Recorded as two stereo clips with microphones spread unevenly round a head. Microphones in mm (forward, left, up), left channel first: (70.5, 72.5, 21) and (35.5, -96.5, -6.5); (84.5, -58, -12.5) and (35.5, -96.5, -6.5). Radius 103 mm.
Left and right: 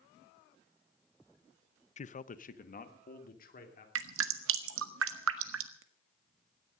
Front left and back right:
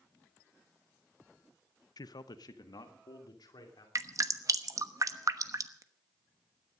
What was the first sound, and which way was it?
A man speaking, 25° left.